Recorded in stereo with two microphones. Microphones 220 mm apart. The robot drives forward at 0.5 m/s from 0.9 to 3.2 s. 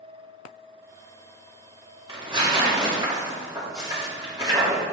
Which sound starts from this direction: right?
Tearing paper, at 2.1 s.